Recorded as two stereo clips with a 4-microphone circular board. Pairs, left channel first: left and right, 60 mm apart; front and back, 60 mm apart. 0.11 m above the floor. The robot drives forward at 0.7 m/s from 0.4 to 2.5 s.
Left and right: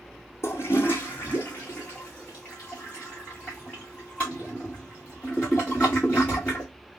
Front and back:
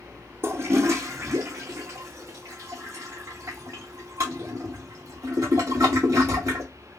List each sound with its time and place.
0.4 s a toilet flushing: 130° left, 1.0 m; by 6.7 s 160° left, 2 m